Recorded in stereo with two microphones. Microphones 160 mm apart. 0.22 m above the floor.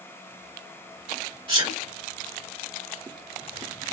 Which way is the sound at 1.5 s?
30° right (ahead or behind).